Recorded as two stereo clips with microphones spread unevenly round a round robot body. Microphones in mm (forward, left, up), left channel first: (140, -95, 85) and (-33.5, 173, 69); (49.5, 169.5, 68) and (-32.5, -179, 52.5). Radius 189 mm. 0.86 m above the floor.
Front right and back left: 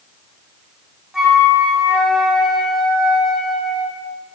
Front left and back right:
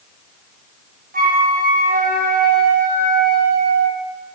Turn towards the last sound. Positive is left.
turn(degrees=-150)